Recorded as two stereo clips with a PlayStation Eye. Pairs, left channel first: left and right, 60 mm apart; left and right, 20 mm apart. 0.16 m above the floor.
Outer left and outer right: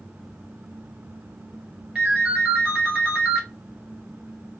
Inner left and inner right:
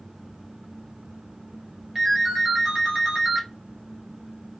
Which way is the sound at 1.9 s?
15° right (ahead or behind).